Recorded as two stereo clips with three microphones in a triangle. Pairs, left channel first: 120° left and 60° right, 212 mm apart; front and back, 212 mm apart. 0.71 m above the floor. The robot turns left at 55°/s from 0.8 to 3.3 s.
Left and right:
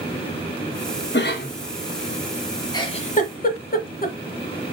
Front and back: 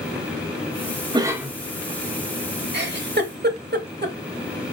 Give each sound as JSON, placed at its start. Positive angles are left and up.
{"t": 1.1, "sound": "a cough", "azimuth_deg": 115, "distance_m": 1.0}
{"t": 2.7, "sound": "a giggle", "azimuth_deg": -170, "distance_m": 0.7}